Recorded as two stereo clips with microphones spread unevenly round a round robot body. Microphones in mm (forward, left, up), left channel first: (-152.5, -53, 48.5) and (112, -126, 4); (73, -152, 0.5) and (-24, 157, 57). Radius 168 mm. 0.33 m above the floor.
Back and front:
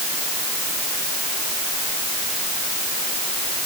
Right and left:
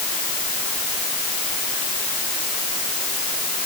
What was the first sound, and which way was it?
Only background noise.